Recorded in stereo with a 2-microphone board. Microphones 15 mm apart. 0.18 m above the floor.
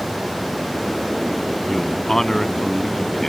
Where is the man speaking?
25° left (ahead or behind).